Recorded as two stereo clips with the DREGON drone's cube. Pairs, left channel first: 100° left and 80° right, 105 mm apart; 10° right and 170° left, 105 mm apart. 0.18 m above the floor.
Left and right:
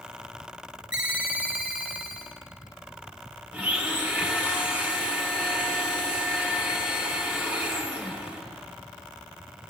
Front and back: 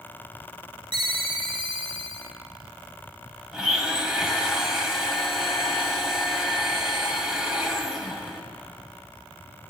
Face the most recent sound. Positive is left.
turn(degrees=-120)